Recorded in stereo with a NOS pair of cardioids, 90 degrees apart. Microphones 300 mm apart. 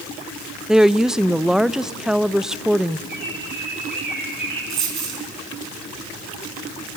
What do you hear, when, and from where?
0.7 s a woman speaking: straight ahead, 0.6 m
3.1 s a bird: 35° right, 7.5 m
4.7 s a dropped coin: 65° right, 4.5 m